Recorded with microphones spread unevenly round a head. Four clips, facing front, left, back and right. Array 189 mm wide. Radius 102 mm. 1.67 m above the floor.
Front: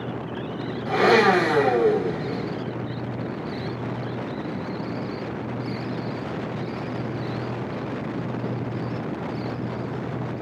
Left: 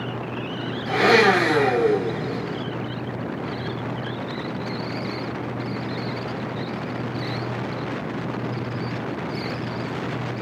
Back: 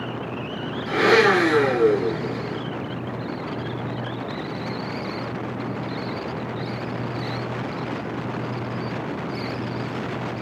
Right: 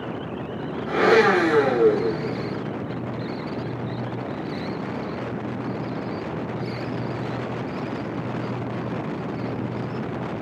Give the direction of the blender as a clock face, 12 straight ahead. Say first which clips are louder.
Even, even; 11 o'clock.